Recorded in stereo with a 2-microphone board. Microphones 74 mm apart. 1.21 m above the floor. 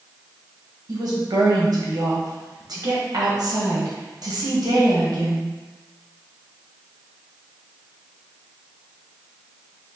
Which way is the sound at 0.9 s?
65° right (ahead or behind).